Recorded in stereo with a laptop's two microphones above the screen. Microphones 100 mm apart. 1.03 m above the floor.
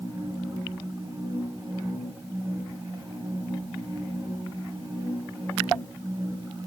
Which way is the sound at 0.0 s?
35° right (ahead or behind).